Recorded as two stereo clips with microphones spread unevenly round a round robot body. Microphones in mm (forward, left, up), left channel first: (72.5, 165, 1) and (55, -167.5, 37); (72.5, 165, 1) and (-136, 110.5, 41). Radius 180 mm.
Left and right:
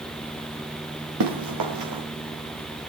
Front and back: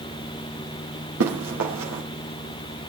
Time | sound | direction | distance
1.2 | running footsteps | 130° right | 3.5 m